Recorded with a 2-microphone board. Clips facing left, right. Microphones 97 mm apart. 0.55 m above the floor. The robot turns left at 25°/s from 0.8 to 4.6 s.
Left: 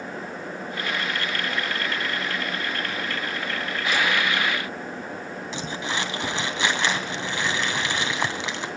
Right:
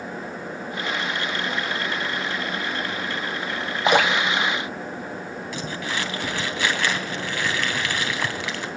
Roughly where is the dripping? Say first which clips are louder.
Right 7 dB; right.